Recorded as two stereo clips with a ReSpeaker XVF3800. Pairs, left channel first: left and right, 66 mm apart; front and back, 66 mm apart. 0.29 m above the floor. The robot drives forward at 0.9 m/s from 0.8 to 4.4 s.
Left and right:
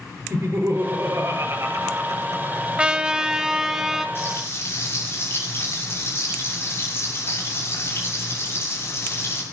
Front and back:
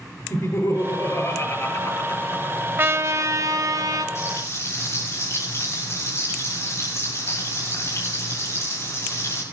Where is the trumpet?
155° right, 0.7 m; by 4.0 s 170° right, 1.7 m.